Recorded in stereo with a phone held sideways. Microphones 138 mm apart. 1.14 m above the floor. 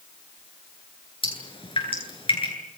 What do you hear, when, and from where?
1.2 s dripping: 40° left (ahead or behind), 9.5 m